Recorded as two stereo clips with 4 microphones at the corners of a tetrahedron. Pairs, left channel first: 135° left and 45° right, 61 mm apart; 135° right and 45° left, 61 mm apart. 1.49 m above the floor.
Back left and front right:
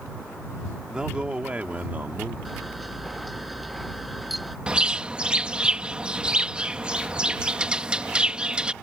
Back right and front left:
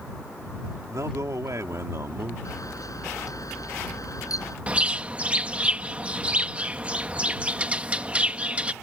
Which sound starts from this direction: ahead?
A bird, at 4.7 s.